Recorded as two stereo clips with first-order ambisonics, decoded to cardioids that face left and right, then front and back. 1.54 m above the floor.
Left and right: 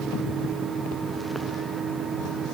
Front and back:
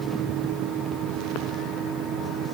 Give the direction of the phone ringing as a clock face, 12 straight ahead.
I don't hear a phone ringing.